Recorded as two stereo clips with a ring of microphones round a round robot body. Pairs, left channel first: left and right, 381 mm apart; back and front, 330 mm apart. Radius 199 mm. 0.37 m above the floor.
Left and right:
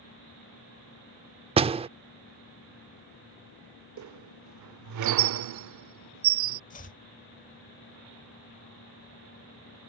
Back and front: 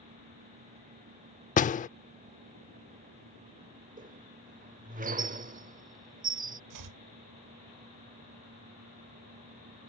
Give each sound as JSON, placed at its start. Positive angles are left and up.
{"t": 1.6, "sound": "a door slam", "azimuth_deg": -145}
{"t": 4.0, "sound": "a squeak", "azimuth_deg": -60}
{"t": 6.7, "sound": "chopping", "azimuth_deg": 20}